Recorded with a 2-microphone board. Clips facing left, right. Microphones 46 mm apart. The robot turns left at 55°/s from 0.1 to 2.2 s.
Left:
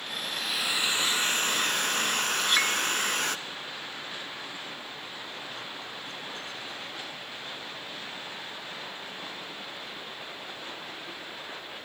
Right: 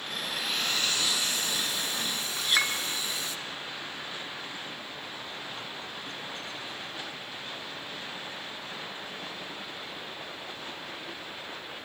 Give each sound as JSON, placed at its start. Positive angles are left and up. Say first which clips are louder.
{"t": 0.2, "sound": "a hair dryer", "louder": "even", "azimuth_deg": -165, "distance_m": 0.7}
{"t": 2.4, "sound": "a clink", "louder": "right 1 dB", "side_deg": 0, "distance_m": 2.0}